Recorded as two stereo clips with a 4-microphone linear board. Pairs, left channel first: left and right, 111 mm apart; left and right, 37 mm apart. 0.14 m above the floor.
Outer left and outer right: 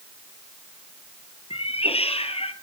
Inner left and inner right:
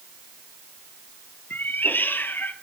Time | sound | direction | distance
1.5 | a cat meowing | 70° left (ahead or behind) | 1.3 m